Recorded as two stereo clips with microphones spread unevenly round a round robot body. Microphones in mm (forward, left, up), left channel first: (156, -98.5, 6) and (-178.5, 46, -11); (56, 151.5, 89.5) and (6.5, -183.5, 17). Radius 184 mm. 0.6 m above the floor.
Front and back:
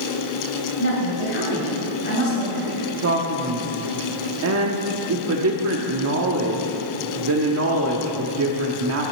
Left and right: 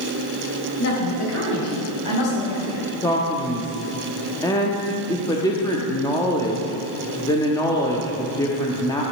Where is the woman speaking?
35° left, 3.5 m; by 2.9 s 50° left, 5 m.